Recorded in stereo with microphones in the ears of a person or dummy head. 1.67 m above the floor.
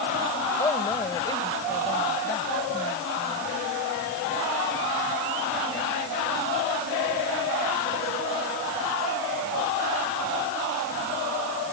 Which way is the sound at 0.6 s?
20° left (ahead or behind).